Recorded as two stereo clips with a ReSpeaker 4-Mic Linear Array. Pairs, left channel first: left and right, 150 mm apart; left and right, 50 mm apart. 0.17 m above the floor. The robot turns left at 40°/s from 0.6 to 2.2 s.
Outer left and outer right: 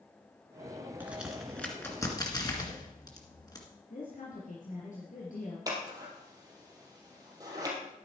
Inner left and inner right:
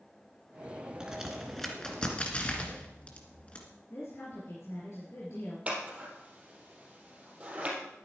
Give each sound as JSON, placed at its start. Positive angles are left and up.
{"t": 1.0, "sound": "a crack", "side_deg": -15, "distance_m": 2.0}
{"t": 3.9, "sound": "a woman speaking", "side_deg": 60, "distance_m": 3.5}
{"t": 5.7, "sound": "scissors", "side_deg": -25, "distance_m": 3.5}